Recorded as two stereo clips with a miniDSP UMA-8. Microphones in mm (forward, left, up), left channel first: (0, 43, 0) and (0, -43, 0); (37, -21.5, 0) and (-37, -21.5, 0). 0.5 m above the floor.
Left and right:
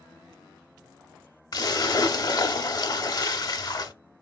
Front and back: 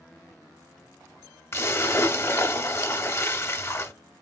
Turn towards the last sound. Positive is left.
turn(degrees=50)